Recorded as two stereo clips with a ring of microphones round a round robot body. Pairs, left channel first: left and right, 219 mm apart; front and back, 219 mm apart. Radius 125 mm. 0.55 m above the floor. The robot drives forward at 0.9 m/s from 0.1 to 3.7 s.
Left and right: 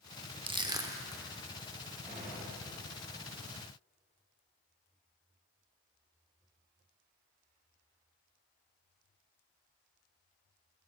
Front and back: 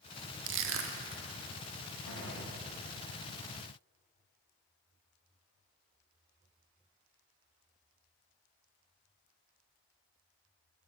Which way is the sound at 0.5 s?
155° right.